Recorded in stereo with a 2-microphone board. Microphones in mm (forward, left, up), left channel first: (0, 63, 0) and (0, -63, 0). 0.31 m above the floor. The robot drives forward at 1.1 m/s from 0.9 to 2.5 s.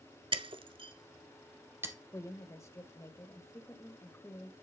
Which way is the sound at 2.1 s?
25° left (ahead or behind).